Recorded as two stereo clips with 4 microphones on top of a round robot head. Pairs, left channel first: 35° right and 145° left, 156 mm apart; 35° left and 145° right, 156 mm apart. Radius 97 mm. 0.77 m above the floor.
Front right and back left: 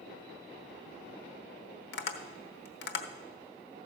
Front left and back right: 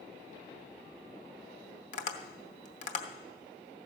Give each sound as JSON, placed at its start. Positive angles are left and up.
{"t": 1.9, "sound": "tapping", "azimuth_deg": -15, "distance_m": 0.9}